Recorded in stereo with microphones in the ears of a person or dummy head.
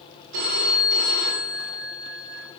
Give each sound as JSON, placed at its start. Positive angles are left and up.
{"t": 0.3, "sound": "a phone ringing", "side_deg": -50, "distance_m": 1.8}